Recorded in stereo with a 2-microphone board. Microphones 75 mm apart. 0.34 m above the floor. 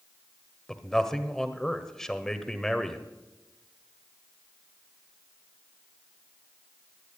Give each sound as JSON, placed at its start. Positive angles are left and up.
{"t": 0.7, "sound": "a man speaking", "side_deg": 5, "distance_m": 1.2}